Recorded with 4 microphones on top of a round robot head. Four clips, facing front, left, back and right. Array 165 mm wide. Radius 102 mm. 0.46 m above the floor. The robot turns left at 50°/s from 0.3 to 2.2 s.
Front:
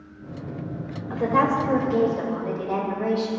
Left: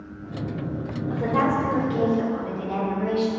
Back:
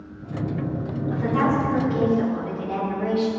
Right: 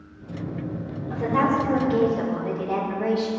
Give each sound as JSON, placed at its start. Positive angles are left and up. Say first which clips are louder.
{"t": 1.1, "sound": "a woman speaking", "louder": "right 1 dB, front 1 dB", "azimuth_deg": 20, "distance_m": 2.0}